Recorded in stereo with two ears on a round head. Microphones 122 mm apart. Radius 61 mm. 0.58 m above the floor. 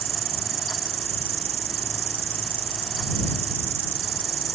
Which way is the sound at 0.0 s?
40° right (ahead or behind).